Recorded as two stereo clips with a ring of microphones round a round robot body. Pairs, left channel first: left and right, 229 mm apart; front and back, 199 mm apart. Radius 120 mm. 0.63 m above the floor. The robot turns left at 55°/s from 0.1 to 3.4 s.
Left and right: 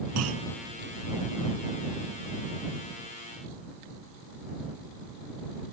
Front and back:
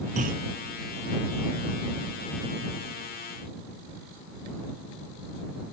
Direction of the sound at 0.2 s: 115° right.